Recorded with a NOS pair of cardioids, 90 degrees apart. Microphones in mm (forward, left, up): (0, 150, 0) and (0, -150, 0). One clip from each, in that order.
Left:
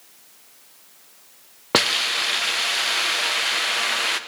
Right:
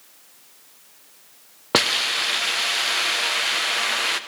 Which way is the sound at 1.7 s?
Straight ahead.